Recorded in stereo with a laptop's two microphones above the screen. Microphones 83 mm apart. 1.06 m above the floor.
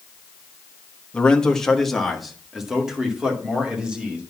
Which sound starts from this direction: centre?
A man speaking, at 1.1 s.